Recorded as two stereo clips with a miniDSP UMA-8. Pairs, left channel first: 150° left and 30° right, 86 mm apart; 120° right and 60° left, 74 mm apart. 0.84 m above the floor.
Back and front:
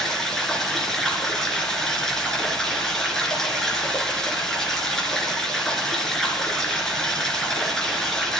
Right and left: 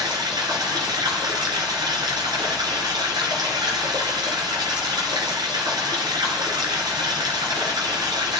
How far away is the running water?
About 4 m.